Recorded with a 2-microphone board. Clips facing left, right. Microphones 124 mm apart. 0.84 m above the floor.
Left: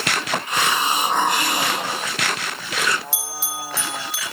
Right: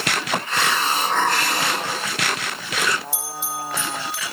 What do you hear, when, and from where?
0.5 s a hiss: 15° left (ahead or behind), 1.4 m
3.1 s a bell: 80° left, 4 m